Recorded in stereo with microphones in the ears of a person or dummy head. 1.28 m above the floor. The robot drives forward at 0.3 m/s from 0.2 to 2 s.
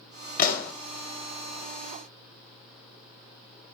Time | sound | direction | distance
0.4 | a pop | 45° left (ahead or behind) | 1.4 m